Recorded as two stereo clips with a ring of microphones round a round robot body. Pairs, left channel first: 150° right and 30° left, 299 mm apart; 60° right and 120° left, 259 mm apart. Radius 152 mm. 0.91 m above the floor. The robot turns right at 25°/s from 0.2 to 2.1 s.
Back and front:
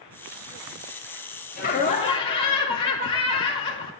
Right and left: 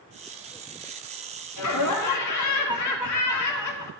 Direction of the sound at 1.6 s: 90° right.